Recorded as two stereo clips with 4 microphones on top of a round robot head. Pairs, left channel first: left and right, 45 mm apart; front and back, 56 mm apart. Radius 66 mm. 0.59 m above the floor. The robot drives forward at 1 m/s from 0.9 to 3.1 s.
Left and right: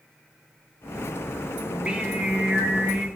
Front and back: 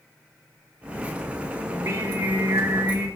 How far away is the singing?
About 2 m.